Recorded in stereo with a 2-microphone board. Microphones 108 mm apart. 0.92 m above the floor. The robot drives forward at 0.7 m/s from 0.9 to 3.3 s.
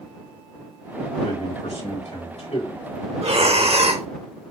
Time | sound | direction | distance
1.2 | a man speaking | 80° left | 5.5 m
3.2 | breathing | 65° right (ahead or behind) | 1.0 m